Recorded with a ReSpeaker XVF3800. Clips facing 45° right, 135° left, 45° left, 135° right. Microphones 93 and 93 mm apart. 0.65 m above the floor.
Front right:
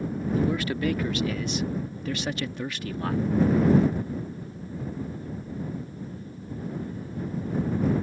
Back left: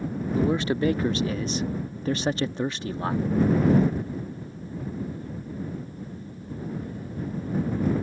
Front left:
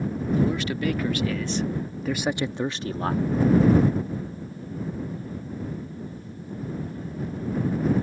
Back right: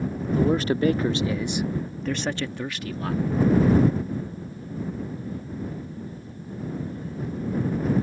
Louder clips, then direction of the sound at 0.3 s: Back left 4 dB, back right 5 dB; 170° right.